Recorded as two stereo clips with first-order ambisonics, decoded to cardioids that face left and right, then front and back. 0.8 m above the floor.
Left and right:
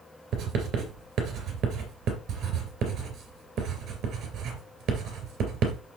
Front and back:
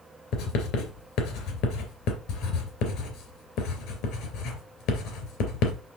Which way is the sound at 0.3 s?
35° right.